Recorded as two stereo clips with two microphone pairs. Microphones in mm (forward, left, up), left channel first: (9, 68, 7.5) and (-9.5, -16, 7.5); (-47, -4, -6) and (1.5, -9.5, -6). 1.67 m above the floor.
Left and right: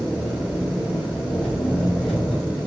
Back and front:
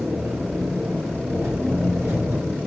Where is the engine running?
5° right, 4 m.